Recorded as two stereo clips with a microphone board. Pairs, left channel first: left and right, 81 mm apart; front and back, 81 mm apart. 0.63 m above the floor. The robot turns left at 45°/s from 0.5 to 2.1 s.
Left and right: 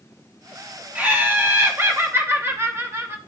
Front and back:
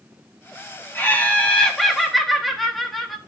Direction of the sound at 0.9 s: 40° right.